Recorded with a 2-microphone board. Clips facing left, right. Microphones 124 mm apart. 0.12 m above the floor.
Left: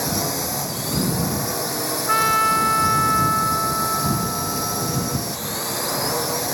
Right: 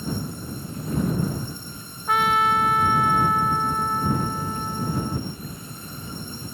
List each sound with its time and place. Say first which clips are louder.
0.0 s a drone: left 6 dB; 75° left (ahead or behind)
2.1 s a trumpet: right 1 dB; centre (ahead or behind)